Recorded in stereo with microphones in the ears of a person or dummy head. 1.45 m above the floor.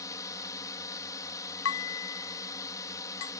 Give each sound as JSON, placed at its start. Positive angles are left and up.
{"t": 0.0, "sound": "a drone", "side_deg": 20}
{"t": 1.6, "sound": "dishes clattering", "side_deg": 70}